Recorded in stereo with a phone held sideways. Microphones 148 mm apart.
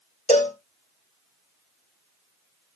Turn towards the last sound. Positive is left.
turn(degrees=55)  # may be behind; listen again after turning